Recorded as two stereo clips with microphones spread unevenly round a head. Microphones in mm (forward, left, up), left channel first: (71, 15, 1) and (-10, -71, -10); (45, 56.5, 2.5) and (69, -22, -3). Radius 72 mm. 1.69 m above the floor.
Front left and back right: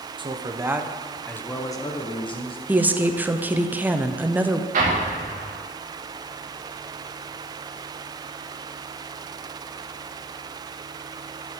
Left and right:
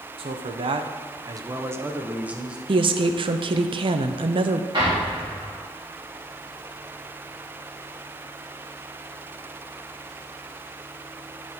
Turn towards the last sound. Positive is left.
turn(degrees=-130)